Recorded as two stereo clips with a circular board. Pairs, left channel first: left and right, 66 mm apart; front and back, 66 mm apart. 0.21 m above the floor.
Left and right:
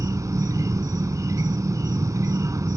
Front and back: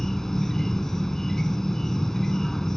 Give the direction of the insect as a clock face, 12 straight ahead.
3 o'clock.